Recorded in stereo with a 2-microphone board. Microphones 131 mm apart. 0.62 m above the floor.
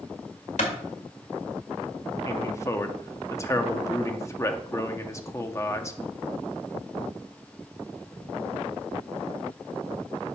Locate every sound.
0.6 s a clap: 75° left (ahead or behind), 1.6 m
2.2 s a man speaking: 25° left (ahead or behind), 0.7 m